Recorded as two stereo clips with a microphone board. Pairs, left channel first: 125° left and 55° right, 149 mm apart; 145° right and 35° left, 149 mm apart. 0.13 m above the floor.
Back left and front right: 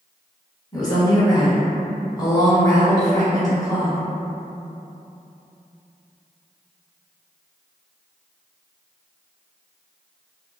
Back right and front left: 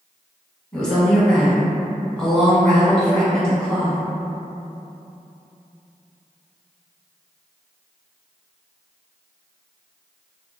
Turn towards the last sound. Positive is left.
turn(degrees=135)